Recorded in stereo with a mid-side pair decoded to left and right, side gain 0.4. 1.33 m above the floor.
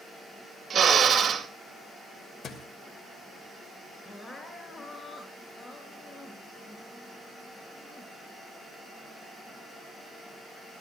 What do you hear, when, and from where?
0.7 s a drill: 45° right, 2.5 m
2.4 s a thud: 60° left, 2.5 m
4.0 s crying: 25° left, 4 m